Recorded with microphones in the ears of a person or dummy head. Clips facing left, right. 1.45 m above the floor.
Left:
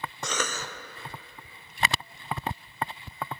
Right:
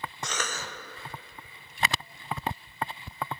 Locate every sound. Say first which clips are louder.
0.2 s a cough: left 4 dB; 75° left (ahead or behind), 0.8 m